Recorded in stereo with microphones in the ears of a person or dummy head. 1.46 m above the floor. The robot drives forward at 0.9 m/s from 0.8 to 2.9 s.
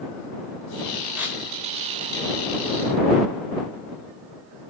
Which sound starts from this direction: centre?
Tearing paper, at 1.1 s.